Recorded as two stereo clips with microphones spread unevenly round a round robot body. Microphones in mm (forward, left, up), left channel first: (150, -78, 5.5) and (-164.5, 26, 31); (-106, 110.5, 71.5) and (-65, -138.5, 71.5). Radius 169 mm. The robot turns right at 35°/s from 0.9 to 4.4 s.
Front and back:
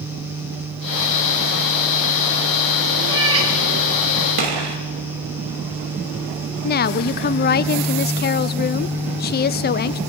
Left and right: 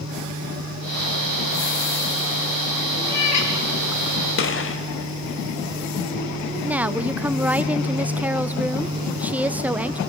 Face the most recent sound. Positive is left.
turn(degrees=0)